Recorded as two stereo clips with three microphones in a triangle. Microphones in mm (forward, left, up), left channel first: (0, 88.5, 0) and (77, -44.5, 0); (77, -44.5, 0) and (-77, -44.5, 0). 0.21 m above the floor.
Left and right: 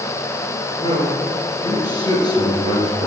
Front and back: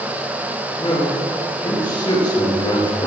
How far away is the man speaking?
About 3.5 m.